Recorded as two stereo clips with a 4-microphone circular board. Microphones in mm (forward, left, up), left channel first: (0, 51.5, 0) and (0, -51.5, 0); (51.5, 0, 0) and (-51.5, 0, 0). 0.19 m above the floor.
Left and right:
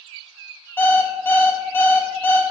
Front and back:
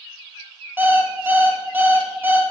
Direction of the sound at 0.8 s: 135° left.